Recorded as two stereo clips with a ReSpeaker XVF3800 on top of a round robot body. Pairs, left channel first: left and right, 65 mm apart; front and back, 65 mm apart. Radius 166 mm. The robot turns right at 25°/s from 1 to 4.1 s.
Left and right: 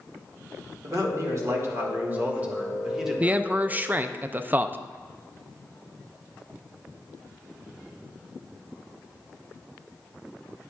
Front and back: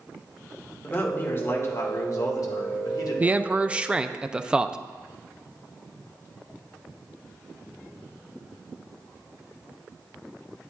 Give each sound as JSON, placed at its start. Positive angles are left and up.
{"t": 0.8, "sound": "a man speaking", "azimuth_deg": -60, "distance_m": 1.8}
{"t": 3.2, "sound": "a man speaking", "azimuth_deg": -135, "distance_m": 0.6}